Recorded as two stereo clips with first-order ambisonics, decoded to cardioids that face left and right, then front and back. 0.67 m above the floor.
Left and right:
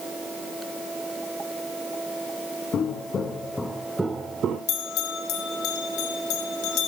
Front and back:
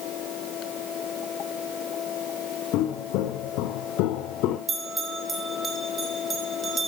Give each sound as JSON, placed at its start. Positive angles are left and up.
{"t": 2.7, "sound": "footsteps", "azimuth_deg": 30, "distance_m": 2.0}
{"t": 4.7, "sound": "a bell", "azimuth_deg": 110, "distance_m": 2.0}